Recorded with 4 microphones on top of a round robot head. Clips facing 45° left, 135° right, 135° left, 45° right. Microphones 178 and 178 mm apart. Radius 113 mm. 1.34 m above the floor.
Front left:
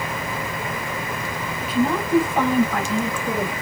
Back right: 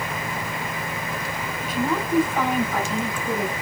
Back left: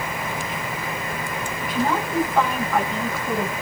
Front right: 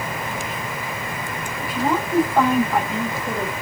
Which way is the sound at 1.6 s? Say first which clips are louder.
Front left 4 dB, front right 1 dB; 35° left.